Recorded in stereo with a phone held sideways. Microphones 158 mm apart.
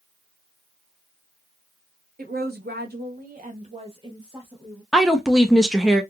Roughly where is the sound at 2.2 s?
Right.